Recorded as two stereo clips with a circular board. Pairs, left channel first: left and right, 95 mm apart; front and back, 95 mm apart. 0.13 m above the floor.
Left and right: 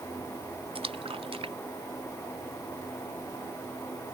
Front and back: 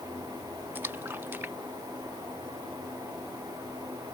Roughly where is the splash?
Right.